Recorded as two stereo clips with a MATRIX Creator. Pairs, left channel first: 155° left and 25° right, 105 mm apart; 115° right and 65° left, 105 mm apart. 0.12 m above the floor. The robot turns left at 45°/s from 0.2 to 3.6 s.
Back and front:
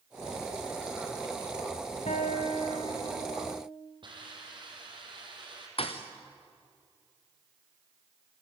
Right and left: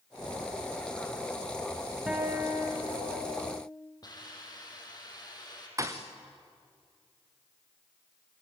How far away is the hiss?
About 5.5 m.